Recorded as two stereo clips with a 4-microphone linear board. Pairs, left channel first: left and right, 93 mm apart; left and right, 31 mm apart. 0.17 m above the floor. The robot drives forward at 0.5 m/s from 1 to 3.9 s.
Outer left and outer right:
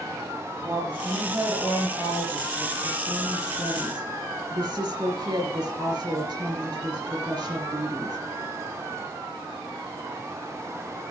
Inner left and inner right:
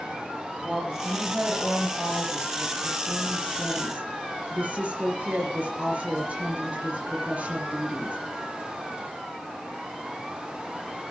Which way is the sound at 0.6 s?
45° right (ahead or behind).